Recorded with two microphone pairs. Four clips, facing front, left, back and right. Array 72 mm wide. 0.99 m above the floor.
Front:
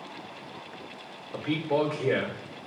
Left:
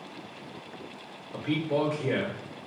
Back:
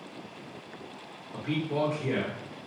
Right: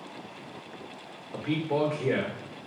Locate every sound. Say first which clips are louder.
1.3 s a man speaking: even, front 3 dB; 55° right, 1.4 m